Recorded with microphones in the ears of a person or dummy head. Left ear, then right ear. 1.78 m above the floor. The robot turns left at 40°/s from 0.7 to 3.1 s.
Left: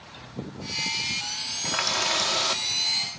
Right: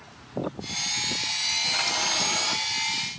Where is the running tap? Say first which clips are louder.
Even; 105° left, 3 m; by 3.2 s 45° left, 3 m.